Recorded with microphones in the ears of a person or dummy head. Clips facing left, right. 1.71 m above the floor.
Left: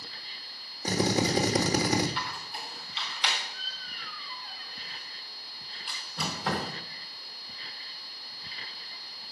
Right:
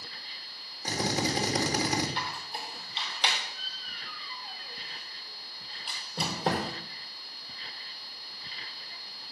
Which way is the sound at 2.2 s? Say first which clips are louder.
Right 1 dB; 25° right (ahead or behind).